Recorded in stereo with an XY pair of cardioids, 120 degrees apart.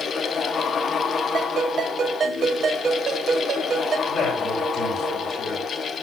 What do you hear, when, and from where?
0.0 s a fan: 40° left, 1.3 m
1.3 s a ringtone: 45° right, 4.5 m
4.1 s a man speaking: 30° left, 9 m